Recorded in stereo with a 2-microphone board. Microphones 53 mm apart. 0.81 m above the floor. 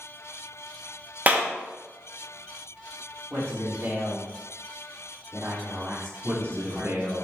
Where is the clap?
30° right (ahead or behind), 1.1 m.